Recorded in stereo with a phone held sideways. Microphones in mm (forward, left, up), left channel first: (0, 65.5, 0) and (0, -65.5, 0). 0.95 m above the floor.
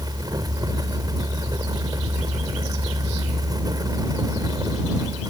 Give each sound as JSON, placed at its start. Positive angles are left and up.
{"t": 0.0, "sound": "a fan", "side_deg": -30}